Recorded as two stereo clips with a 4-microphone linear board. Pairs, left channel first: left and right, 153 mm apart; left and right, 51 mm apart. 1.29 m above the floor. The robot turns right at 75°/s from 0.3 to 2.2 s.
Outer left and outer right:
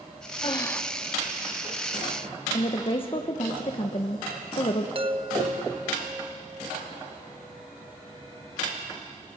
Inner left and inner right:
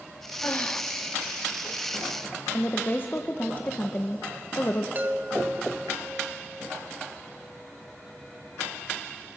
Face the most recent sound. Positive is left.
turn(degrees=-35)  # may be behind; listen again after turning